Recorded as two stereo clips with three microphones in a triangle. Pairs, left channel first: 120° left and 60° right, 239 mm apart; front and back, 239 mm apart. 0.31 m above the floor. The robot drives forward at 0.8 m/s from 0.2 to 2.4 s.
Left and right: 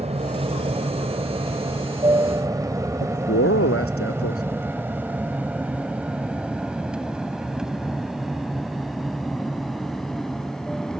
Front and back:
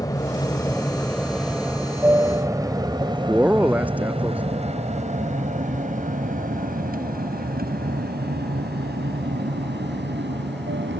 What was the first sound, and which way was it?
An aircraft, 55° right.